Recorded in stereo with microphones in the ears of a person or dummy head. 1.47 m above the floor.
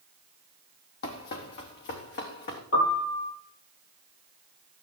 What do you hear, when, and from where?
1.0 s running footsteps: 55° left (ahead or behind), 2.5 m
2.7 s a piano: 70° left (ahead or behind), 7 m